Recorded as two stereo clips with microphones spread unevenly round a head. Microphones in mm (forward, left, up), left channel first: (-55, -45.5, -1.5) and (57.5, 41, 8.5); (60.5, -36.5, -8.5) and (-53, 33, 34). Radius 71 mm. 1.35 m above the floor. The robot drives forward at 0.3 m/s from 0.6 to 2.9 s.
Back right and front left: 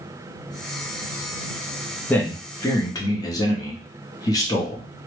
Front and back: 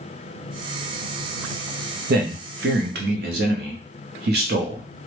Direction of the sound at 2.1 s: 145° left.